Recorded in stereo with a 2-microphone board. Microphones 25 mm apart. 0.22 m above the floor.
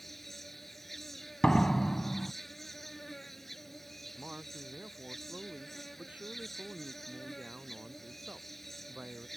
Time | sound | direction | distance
0.0 | an insect | 10° left (ahead or behind) | ?
1.4 | a door slam | 35° left (ahead or behind) | ?
4.2 | a man speaking | 65° right (ahead or behind) | ?